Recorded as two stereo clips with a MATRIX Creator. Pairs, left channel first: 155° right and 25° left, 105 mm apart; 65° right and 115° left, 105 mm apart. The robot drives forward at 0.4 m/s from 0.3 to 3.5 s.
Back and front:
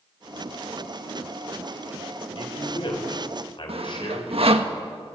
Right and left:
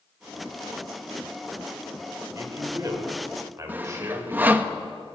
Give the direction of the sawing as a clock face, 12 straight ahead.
11 o'clock.